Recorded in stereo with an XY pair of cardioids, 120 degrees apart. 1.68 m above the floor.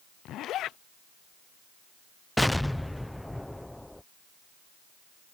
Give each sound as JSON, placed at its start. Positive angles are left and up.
{"t": 0.2, "sound": "a zipper", "azimuth_deg": 65}
{"t": 2.4, "sound": "an explosion", "azimuth_deg": 5}